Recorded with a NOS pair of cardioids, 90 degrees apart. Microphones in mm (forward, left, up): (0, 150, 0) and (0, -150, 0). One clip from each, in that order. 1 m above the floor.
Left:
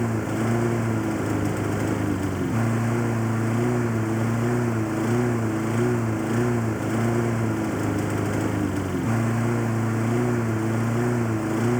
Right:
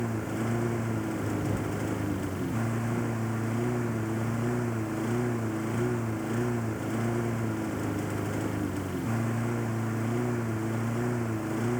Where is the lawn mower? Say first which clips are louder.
Left 6 dB; 50° left.